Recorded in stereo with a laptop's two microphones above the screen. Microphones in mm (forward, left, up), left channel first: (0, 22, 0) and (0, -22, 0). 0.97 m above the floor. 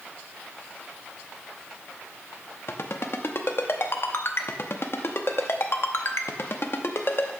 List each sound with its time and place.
2.7 s a ringtone: 55° left (ahead or behind), 0.7 m